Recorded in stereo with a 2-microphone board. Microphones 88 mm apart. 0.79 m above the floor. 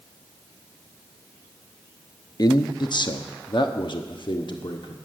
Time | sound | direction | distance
2.4 | a man speaking | 50° left (ahead or behind) | 0.8 m